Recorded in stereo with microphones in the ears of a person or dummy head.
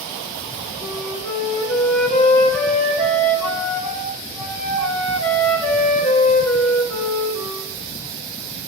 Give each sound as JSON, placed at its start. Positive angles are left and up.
{"t": 0.8, "sound": "a flute", "side_deg": 5, "distance_m": 1.9}